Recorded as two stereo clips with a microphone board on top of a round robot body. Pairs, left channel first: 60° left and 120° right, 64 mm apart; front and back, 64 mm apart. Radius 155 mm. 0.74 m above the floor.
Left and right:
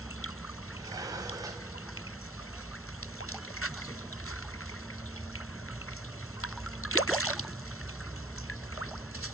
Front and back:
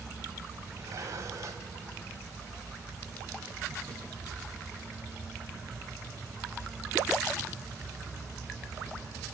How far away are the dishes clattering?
About 4 m.